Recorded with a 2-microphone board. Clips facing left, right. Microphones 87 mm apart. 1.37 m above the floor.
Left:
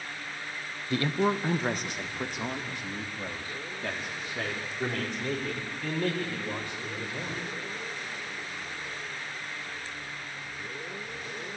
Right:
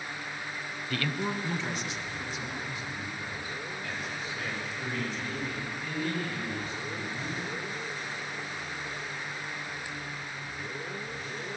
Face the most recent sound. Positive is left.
turn(degrees=70)  # may be behind; listen again after turning